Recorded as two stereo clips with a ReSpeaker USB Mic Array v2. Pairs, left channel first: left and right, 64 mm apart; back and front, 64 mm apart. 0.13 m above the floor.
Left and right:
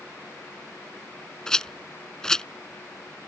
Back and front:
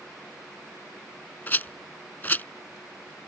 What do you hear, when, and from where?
1.5 s a rattle: 160° left